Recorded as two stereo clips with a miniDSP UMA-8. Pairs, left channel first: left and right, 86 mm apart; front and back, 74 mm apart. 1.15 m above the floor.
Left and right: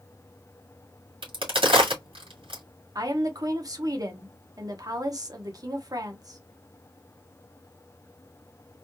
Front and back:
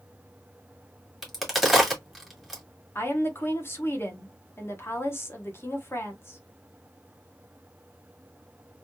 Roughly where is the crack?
Right.